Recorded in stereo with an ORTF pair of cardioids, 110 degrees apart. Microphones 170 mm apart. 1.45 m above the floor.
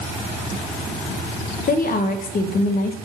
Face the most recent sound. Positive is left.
turn(degrees=55)